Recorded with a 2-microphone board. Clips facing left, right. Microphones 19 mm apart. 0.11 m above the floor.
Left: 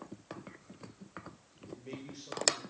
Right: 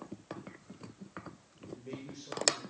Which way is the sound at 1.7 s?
15° left (ahead or behind).